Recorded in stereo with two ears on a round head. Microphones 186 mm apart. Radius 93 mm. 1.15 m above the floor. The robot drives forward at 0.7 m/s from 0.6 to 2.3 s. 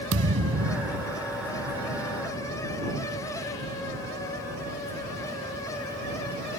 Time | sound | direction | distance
0.1 | a thud | 80° right | ?